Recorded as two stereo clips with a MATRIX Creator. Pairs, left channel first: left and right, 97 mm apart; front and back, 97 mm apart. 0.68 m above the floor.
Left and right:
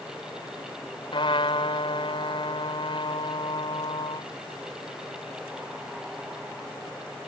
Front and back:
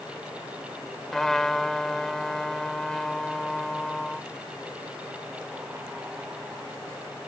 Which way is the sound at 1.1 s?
85° left.